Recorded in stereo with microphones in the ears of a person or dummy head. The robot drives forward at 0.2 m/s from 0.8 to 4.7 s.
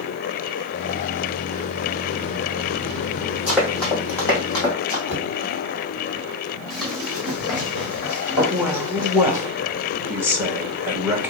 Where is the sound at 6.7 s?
Centre (ahead or behind), 3 m; by 9.4 s 25° right (ahead or behind), 2.5 m.